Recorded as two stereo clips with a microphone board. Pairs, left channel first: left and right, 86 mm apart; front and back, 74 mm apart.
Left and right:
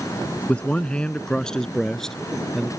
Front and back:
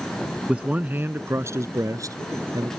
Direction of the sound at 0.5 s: 135° left.